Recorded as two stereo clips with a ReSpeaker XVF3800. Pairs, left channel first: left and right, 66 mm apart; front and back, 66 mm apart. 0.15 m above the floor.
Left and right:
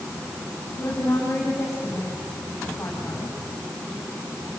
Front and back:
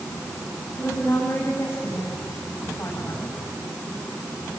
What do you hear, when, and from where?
0.8 s a woman speaking: 50° left, 8.5 m